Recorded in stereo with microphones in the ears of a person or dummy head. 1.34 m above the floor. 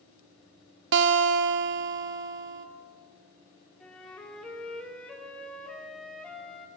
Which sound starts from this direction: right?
A guitar, at 0.9 s.